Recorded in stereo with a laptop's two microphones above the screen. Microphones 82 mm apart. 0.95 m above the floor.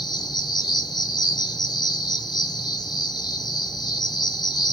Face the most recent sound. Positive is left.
turn(degrees=55)  # may be behind; listen again after turning